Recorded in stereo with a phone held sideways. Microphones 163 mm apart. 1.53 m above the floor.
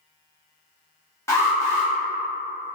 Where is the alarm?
20° left (ahead or behind), 0.8 m.